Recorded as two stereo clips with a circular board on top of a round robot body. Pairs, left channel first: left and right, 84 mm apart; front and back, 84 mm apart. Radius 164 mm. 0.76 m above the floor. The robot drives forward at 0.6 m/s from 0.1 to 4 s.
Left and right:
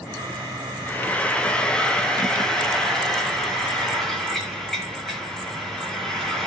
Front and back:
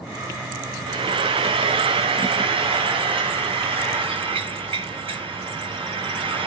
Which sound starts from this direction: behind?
Frying, at 0.9 s.